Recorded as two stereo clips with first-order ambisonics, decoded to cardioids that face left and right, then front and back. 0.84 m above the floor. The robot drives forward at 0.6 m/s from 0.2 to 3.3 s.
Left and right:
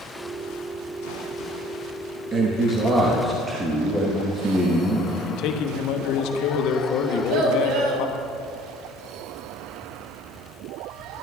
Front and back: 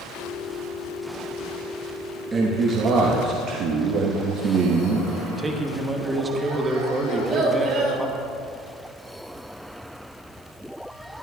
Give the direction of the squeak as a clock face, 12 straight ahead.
No squeak in this recording.